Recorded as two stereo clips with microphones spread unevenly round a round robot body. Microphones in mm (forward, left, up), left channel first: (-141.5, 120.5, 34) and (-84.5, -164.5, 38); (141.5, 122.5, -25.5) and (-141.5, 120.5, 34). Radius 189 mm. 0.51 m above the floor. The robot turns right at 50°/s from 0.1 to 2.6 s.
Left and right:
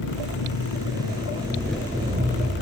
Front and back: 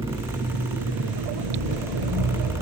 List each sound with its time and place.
0.0 s an engine running: 110° left, 7.5 m; by 2.6 s 125° right, 7.5 m